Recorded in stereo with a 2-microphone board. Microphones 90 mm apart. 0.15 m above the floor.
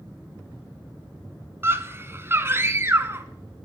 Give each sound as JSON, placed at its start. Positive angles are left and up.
{"t": 1.6, "sound": "a scream", "side_deg": -25, "distance_m": 1.3}